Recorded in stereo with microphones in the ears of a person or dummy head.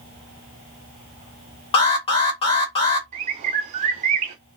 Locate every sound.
1.7 s an alarm: 30° left (ahead or behind), 1.8 m
3.1 s a bird: 30° right (ahead or behind), 0.6 m